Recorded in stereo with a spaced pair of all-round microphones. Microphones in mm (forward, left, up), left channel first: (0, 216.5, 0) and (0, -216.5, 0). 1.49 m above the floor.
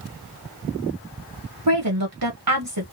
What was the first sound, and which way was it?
A woman speaking, 55° right (ahead or behind).